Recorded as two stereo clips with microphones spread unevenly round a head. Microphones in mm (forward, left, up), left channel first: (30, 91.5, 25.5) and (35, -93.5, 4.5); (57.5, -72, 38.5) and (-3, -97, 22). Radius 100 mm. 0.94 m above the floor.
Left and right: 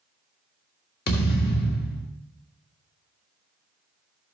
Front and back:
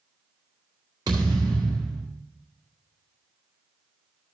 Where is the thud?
140° left, 1.6 m.